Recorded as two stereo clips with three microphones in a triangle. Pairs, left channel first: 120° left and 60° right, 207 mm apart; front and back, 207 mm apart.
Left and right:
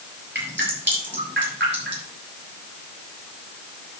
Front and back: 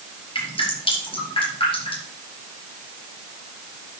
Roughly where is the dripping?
Ahead right.